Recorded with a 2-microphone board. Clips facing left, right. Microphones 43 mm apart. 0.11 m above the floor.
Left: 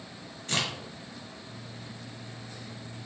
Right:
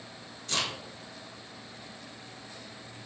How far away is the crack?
About 1.4 m.